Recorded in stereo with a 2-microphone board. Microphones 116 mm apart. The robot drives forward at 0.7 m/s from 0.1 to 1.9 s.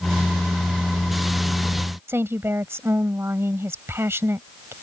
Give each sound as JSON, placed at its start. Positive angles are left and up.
{"t": 2.1, "sound": "a woman speaking", "side_deg": -20}